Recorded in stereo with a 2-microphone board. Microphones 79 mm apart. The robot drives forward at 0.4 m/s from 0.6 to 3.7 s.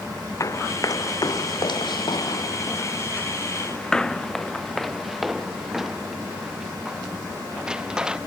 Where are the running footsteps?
40° left (ahead or behind); by 8.2 s 10° right (ahead or behind).